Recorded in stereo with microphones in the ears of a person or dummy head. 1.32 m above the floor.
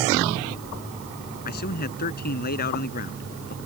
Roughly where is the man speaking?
Left.